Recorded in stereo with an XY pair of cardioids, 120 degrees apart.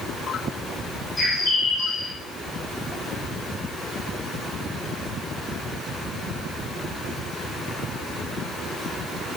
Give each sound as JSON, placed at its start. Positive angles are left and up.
{"t": 1.2, "sound": "a bird", "azimuth_deg": 30, "distance_m": 1.1}